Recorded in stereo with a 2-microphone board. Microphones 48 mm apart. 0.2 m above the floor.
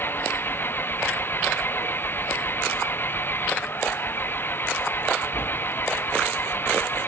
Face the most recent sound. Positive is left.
turn(degrees=45)  # may be behind; listen again after turning